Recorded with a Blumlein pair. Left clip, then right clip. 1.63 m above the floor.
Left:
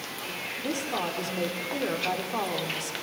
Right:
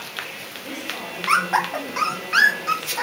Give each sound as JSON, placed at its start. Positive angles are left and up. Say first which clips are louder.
{"t": 0.6, "sound": "a woman speaking", "louder": "left 1 dB", "azimuth_deg": 70, "distance_m": 6.0}